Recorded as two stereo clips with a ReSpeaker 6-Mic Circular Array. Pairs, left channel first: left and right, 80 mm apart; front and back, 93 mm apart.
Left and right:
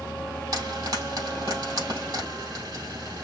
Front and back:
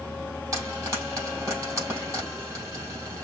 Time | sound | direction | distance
0.5 | frying | 125° right | 4 m